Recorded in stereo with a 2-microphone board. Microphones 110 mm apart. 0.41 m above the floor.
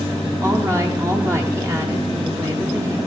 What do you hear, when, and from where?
0.4 s a woman speaking: 25° right (ahead or behind), 1.0 m